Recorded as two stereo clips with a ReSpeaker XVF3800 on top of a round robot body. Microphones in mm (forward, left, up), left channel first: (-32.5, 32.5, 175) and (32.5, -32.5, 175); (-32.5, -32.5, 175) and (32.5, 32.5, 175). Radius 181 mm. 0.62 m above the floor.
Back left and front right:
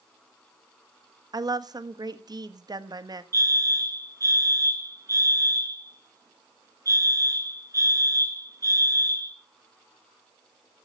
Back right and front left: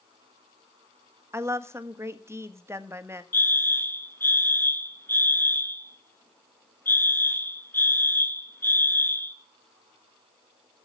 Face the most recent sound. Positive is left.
turn(degrees=-80)